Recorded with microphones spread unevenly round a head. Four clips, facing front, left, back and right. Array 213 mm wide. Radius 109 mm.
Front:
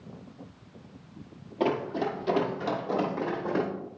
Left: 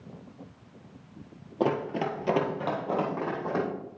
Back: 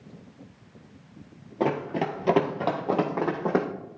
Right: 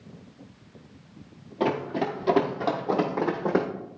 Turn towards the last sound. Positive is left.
turn(degrees=-150)